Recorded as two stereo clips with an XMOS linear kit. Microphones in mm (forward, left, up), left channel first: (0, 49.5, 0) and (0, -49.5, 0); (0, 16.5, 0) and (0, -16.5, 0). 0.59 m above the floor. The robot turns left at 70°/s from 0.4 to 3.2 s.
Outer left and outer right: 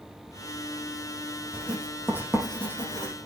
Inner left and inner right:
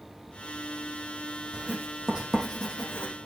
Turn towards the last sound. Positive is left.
turn(degrees=55)  # may be behind; listen again after turning